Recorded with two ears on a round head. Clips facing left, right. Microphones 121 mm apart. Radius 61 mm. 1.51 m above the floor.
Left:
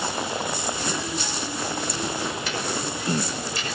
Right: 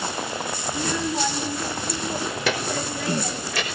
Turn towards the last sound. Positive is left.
turn(degrees=-55)  # may be behind; listen again after turning